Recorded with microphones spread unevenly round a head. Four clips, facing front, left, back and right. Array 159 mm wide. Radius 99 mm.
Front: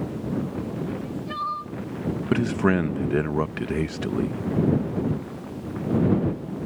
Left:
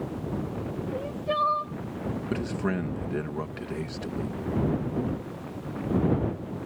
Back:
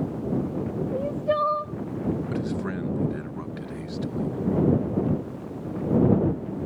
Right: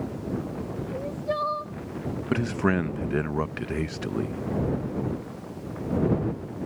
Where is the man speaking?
15° right.